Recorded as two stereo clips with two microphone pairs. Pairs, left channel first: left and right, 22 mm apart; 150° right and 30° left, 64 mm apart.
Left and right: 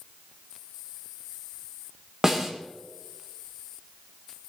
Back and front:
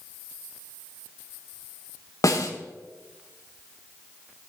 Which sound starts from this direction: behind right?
A snare drum, at 2.2 s.